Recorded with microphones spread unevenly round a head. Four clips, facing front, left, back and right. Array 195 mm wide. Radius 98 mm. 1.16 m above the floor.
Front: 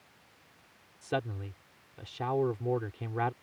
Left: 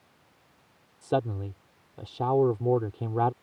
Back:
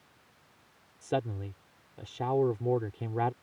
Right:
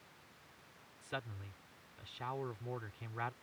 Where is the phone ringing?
No phone ringing in this recording.